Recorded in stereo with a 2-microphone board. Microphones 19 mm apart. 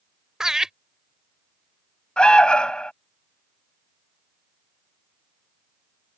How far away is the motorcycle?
No motorcycle in this recording.